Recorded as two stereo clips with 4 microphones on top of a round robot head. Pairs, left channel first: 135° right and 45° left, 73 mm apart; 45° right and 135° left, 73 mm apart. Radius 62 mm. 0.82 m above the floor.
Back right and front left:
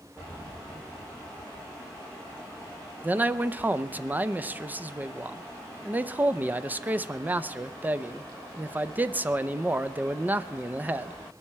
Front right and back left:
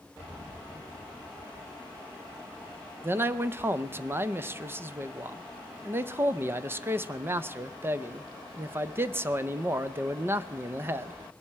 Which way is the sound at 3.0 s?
100° left.